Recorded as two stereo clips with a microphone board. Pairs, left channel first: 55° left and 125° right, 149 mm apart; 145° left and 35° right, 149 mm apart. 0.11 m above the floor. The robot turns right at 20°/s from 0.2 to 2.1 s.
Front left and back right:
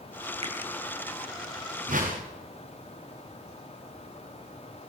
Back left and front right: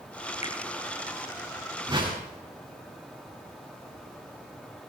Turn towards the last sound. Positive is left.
turn(degrees=-90)